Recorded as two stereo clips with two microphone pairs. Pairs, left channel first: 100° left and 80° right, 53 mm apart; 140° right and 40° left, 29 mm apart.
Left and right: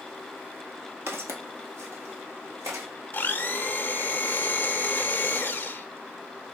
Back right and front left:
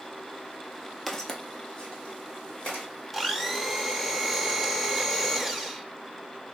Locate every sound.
1.1 s footsteps: 60° right, 0.6 m; by 2.9 s 90° right, 2.5 m
3.1 s a blender: 125° left, 0.5 m